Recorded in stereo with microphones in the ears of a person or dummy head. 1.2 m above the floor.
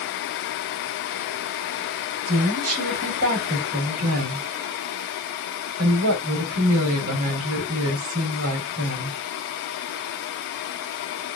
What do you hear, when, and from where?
2.3 s a woman speaking: 85° right, 4 m